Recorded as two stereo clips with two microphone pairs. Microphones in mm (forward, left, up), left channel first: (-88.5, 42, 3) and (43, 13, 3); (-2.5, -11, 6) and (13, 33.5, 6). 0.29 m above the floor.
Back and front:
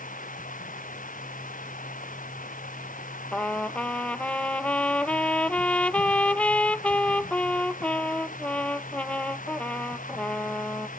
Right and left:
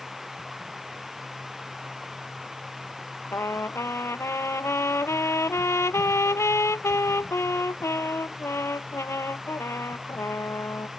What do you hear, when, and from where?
0.0 s running water: 155° left
3.3 s a trumpet: 110° right